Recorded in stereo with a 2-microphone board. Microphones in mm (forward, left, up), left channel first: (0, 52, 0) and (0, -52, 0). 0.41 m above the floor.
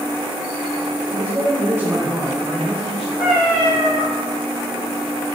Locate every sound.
1.1 s a man speaking: 20° right (ahead or behind), 1.3 m; by 3.1 s centre (ahead or behind), 1.6 m
3.2 s a cat meowing: 10° right (ahead or behind), 1.4 m